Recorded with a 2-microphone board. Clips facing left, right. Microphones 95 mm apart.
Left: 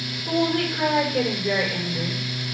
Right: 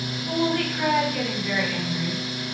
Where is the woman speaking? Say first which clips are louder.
Left 2 dB; 45° left (ahead or behind), 7 m.